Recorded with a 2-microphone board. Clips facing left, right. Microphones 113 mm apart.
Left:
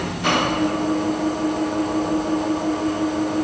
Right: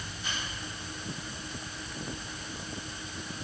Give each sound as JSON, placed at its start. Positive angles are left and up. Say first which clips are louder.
{"t": 0.0, "sound": "an engine running", "louder": "left 19 dB", "side_deg": 60}